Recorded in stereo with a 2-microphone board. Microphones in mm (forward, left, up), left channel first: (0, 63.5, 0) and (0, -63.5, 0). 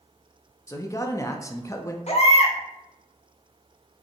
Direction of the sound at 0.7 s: 25° left (ahead or behind).